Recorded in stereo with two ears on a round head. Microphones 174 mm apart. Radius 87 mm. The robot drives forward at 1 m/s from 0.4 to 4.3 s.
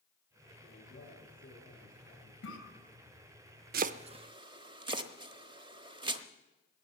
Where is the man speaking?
45° left (ahead or behind), 8.5 m; by 2.3 s 40° left (ahead or behind), 9.5 m.